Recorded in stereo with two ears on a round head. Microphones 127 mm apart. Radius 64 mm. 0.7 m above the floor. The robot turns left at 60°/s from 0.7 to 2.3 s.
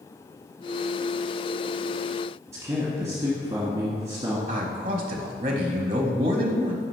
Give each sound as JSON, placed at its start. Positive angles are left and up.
{"t": 2.5, "sound": "a man speaking", "side_deg": -20, "distance_m": 1.3}
{"t": 4.5, "sound": "a man speaking", "side_deg": -40, "distance_m": 0.7}